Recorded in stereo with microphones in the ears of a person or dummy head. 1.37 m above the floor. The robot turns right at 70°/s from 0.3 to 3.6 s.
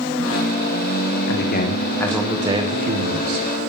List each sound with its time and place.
1.3 s a man speaking: 120° left, 1.5 m; by 3.5 s 85° right, 1.5 m